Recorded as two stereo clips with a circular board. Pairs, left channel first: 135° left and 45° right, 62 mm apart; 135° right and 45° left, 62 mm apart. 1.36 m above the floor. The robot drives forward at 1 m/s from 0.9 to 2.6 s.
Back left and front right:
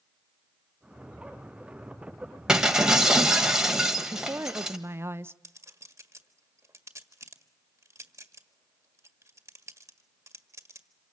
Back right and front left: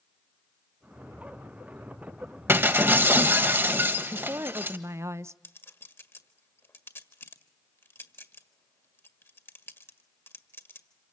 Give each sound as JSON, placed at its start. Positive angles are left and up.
{"t": 2.5, "sound": "breaking glass", "azimuth_deg": 25, "distance_m": 1.5}
{"t": 4.1, "sound": "a woman speaking", "azimuth_deg": 0, "distance_m": 0.8}
{"t": 5.4, "sound": "a clink", "azimuth_deg": -85, "distance_m": 1.7}